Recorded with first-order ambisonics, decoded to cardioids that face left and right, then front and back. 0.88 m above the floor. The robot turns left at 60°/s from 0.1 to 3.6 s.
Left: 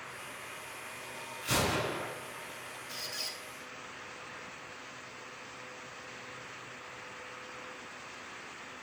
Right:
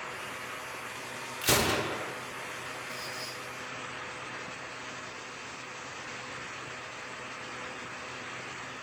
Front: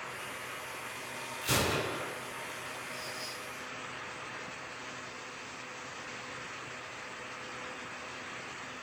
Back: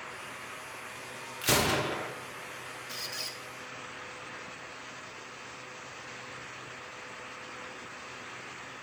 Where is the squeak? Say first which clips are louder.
Right 1 dB, back 2 dB; 165° left, 1.5 m; by 3.4 s 135° left, 1.5 m.